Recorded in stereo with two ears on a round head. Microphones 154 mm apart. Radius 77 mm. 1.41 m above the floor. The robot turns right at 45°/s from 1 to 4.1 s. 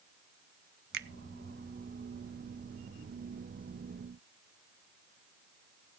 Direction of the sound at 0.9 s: 60° right (ahead or behind).